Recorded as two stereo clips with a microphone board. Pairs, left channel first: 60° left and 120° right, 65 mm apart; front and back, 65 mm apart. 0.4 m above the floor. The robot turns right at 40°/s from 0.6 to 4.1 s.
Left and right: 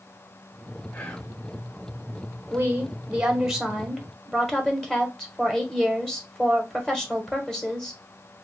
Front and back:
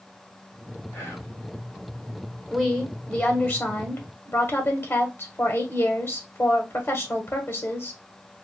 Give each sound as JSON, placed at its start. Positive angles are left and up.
{"t": 0.9, "sound": "whispering", "azimuth_deg": 10, "distance_m": 1.5}
{"t": 2.5, "sound": "a woman speaking", "azimuth_deg": -85, "distance_m": 1.2}